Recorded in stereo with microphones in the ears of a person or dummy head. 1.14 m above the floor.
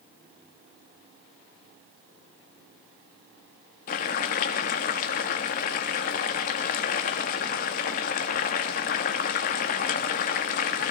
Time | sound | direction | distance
3.9 | boiling | 45° left (ahead or behind) | 0.8 m